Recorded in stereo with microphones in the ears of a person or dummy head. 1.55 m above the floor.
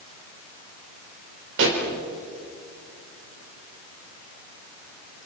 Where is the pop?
75° right (ahead or behind), 4.5 m.